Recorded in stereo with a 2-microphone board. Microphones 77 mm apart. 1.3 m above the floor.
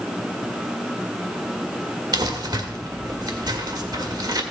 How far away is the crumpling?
About 1.6 m.